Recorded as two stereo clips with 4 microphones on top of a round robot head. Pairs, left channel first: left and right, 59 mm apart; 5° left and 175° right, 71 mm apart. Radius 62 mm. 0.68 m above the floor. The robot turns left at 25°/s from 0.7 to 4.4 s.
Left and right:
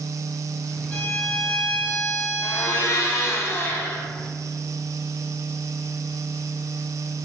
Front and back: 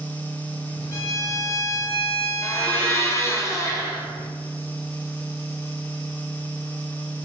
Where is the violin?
20° left, 1.1 m; by 3.4 s 40° right, 1.1 m.